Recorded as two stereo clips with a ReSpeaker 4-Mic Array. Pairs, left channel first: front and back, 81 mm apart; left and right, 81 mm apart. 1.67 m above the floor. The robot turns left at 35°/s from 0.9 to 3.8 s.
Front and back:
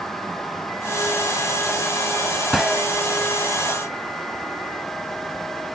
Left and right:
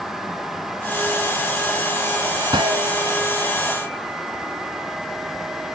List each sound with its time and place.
2.5 s a gunshot: 90° right; by 2.9 s 105° right